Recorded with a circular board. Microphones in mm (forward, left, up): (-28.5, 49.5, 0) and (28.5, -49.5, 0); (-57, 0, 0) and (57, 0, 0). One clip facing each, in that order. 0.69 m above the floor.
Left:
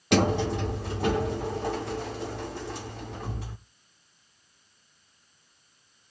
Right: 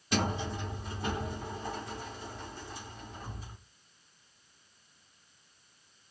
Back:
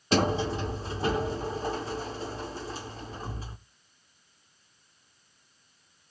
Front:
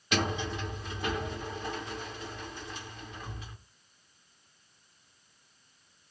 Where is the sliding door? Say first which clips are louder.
Left 9 dB, back 6 dB; 125° left, 1.0 m.